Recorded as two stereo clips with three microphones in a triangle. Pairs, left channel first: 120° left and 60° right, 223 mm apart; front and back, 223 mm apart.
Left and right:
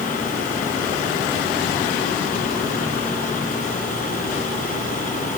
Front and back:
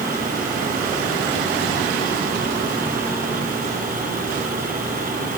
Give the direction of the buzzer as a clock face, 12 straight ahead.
I don't hear a buzzer.